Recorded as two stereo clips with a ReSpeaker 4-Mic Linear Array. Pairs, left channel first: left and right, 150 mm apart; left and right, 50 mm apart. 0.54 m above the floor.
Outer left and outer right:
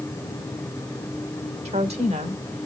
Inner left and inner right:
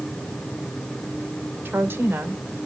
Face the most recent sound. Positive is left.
turn(degrees=-45)  # may be behind; listen again after turning